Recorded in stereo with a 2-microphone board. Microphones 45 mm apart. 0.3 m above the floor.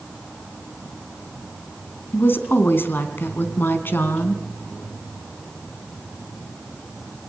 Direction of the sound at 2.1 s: 55° left (ahead or behind).